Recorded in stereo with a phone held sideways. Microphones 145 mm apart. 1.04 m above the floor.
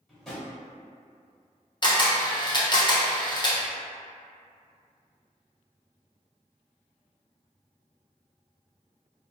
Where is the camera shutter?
35° left (ahead or behind), 0.6 m.